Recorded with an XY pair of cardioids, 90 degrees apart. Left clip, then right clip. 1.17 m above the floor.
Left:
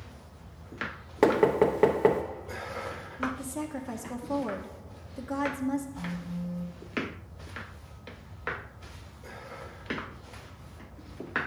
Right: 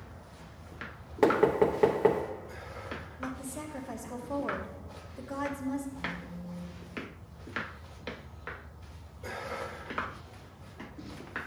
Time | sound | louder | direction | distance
1.2 | knocking | left 2 dB | 25° left | 0.7 m
3.2 | a woman speaking | left 9 dB | 45° left | 0.9 m
6.0 | a phone buzzing | right 1 dB | 70° left | 1.0 m